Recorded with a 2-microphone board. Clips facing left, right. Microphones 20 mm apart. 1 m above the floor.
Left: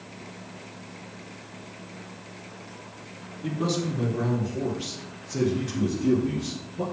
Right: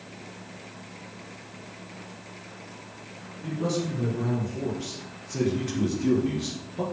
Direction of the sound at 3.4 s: 55° left (ahead or behind).